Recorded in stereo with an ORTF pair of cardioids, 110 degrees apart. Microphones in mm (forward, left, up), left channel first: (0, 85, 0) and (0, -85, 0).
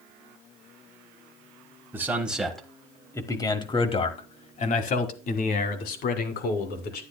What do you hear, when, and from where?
1.9 s a man speaking: 15° right, 1.5 m; by 7.0 s 75° left, 2.5 m